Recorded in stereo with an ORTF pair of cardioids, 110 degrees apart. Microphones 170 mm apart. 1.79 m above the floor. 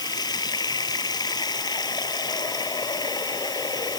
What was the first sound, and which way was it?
Running water, 25° left.